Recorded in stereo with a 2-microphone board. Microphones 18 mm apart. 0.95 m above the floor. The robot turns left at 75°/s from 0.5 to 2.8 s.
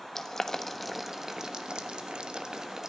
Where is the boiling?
20° left (ahead or behind), 1.1 m; by 2.9 s 30° right (ahead or behind), 1.1 m.